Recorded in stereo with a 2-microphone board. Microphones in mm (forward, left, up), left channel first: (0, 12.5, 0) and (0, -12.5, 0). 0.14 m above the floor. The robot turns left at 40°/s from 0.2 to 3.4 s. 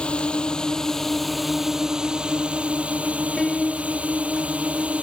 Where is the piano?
10° left (ahead or behind).